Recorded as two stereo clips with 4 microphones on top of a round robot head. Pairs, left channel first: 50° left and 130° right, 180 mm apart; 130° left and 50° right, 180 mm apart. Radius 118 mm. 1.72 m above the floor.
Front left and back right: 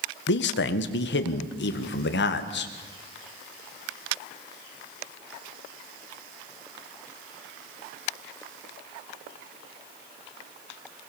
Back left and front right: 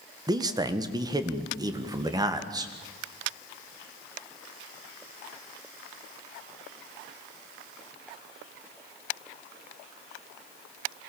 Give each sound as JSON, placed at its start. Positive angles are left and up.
{"t": 0.3, "sound": "a man speaking", "azimuth_deg": 20, "distance_m": 1.5}